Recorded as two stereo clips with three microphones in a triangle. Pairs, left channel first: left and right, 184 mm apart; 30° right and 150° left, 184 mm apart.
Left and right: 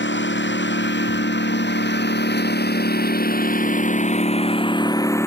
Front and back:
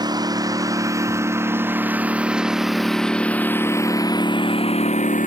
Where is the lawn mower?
80° left; by 5.3 s 15° left.